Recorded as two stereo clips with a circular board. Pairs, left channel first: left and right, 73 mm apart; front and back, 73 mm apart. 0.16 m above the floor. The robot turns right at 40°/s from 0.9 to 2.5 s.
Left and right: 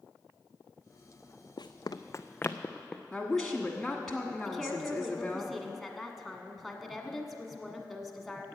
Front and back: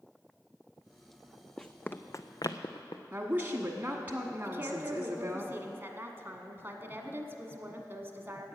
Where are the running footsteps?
80° left, 0.7 m; by 3.0 s 5° left, 1.1 m.